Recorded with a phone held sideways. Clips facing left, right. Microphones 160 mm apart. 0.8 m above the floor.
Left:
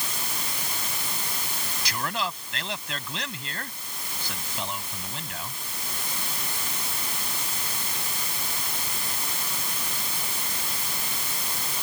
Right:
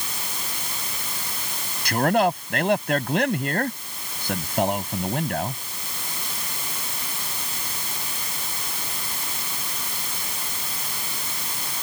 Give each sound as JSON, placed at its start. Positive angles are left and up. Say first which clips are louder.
{"t": 1.9, "sound": "a man speaking", "louder": "right 12 dB", "side_deg": -60}